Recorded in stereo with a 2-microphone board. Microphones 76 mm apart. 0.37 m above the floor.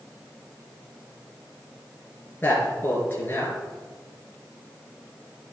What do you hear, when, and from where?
2.4 s a man speaking: 30° left (ahead or behind), 5 m